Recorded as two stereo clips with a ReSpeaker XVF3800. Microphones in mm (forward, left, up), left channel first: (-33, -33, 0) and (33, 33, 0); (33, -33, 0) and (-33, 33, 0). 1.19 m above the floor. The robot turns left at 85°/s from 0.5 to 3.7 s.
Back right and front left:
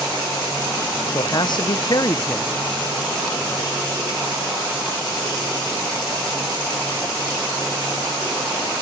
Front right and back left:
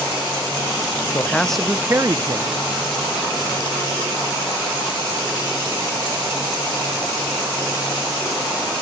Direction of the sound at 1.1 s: 100° right.